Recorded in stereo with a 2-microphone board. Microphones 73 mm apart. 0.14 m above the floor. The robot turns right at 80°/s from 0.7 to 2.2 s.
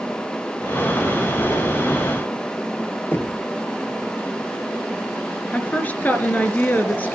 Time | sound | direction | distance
3.1 | knocking | 30° left (ahead or behind) | 1.9 m
5.5 | a woman speaking | 25° left (ahead or behind) | 2.5 m